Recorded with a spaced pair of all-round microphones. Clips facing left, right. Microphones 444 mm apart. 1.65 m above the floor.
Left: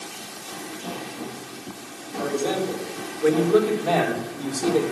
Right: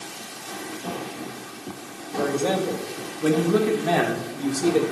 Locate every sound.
2.2 s a man speaking: 70° right (ahead or behind), 2.5 m; by 4.8 s 5° right (ahead or behind), 1.9 m